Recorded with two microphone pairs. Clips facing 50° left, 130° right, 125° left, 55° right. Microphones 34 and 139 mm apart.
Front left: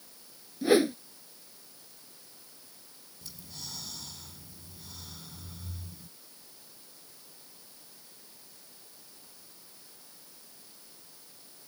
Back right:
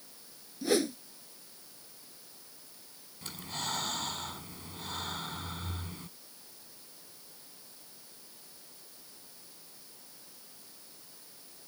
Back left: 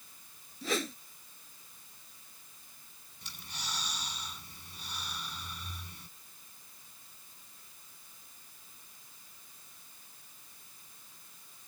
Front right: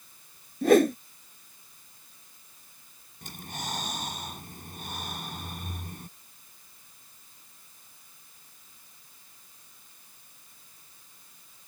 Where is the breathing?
95° right.